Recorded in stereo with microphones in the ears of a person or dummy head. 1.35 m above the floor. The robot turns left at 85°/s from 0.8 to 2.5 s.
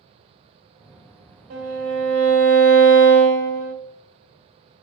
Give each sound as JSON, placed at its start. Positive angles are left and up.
{"t": 1.5, "sound": "a violin", "azimuth_deg": -135, "distance_m": 0.9}